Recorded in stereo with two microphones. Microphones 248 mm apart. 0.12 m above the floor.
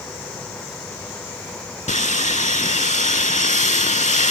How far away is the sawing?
About 0.6 m.